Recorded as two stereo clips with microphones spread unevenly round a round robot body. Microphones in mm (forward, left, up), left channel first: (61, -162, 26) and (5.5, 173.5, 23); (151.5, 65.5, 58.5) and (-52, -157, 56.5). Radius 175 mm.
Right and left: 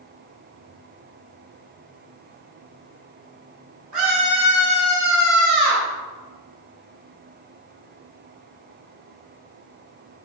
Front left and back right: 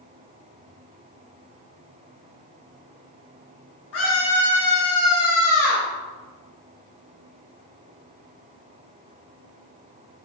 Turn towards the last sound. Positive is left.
turn(degrees=65)